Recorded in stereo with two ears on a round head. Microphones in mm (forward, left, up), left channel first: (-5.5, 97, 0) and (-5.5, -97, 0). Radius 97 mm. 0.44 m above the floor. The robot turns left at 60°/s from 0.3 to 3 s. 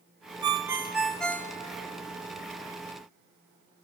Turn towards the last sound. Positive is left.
turn(degrees=65)